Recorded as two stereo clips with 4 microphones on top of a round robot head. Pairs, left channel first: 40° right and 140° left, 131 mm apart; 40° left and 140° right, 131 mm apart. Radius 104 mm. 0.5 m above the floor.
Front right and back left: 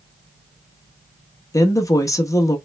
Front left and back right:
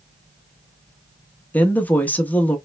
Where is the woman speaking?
20° right, 0.9 m.